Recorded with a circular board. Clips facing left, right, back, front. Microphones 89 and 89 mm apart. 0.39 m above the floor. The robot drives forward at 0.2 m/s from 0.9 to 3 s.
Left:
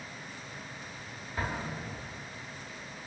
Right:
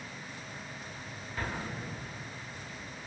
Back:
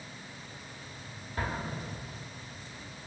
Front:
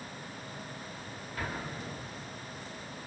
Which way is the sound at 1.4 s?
150° left.